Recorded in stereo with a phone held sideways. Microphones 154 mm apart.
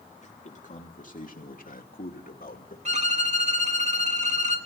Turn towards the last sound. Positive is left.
turn(degrees=-50)  # may be behind; listen again after turning